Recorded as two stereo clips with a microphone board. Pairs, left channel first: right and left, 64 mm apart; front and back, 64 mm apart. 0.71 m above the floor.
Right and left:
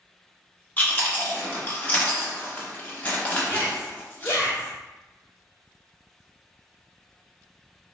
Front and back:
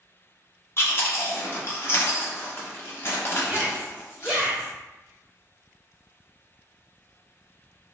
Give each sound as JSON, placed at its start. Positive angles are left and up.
{"t": 0.8, "sound": "chewing", "azimuth_deg": -30, "distance_m": 0.8}
{"t": 3.5, "sound": "a shout", "azimuth_deg": -120, "distance_m": 1.3}